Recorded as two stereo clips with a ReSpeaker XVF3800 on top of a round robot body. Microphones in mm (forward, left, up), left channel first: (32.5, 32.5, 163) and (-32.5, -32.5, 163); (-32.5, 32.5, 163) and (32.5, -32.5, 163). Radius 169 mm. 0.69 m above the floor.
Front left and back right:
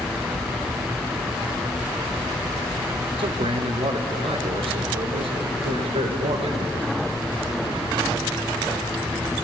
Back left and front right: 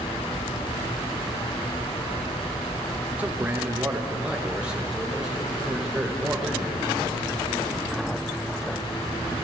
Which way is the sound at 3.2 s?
120° right.